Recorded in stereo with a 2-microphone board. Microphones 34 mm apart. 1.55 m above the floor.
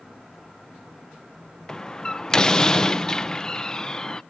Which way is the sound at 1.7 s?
20° left (ahead or behind).